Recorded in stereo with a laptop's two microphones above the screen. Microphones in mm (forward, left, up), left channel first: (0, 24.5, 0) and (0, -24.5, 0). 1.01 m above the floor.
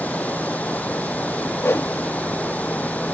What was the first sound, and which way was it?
Running water, 35° left (ahead or behind).